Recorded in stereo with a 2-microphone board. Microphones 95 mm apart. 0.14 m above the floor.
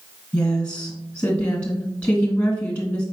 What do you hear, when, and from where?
0.3 s a woman speaking: 15° left (ahead or behind), 1.2 m